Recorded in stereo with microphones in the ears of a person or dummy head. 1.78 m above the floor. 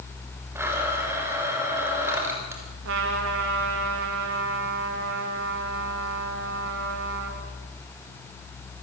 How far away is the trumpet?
About 3.5 m.